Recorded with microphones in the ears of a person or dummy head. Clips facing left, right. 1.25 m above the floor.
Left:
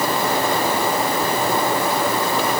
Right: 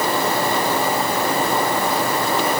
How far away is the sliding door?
I don't hear a sliding door.